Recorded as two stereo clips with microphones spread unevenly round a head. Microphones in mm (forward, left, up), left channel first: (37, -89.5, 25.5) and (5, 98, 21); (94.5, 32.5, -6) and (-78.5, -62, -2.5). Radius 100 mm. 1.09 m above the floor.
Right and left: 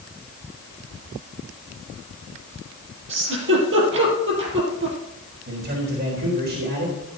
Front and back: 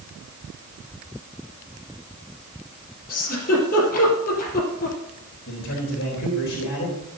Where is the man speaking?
65° left, 4 m.